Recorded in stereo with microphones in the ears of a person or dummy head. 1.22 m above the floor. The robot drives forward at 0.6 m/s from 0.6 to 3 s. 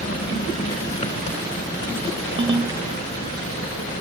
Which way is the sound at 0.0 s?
30° left (ahead or behind).